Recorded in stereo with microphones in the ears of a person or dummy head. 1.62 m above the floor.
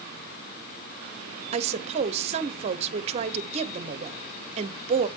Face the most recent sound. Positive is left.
turn(degrees=-35)  # may be behind; listen again after turning